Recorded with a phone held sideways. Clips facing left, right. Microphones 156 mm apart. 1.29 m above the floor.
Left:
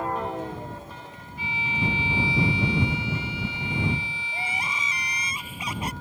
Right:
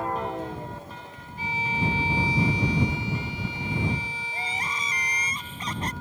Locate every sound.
1.4 s a violin: 45° right (ahead or behind)
4.3 s crying: 10° left (ahead or behind)